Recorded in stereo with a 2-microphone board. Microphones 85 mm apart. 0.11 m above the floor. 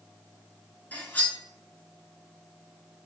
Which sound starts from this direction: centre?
Cutlery clinking, at 0.9 s.